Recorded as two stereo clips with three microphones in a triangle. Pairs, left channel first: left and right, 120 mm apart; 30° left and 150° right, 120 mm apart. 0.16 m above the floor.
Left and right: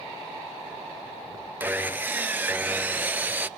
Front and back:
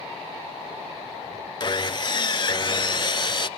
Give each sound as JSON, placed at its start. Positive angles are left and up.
{"t": 1.6, "sound": "sawing", "azimuth_deg": -20, "distance_m": 0.6}